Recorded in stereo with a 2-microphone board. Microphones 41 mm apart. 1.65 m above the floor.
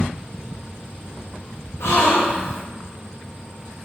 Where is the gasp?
85° left, 0.8 m.